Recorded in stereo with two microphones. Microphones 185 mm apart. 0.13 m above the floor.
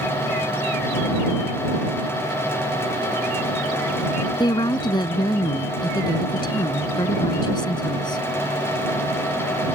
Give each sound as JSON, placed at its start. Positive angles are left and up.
{"t": 4.4, "sound": "a woman speaking", "side_deg": 25}